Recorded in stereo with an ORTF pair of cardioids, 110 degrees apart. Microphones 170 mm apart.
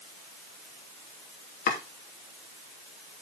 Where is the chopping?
55° left, 3 m.